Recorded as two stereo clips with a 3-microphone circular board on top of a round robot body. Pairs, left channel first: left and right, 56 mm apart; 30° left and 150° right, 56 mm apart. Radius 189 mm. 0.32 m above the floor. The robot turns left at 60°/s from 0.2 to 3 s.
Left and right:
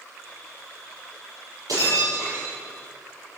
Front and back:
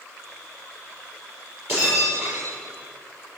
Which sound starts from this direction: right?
Breaking glass, at 1.7 s.